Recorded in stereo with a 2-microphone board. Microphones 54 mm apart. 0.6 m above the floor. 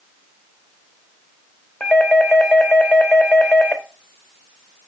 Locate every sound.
1.8 s a doorbell: 25° left (ahead or behind), 1.1 m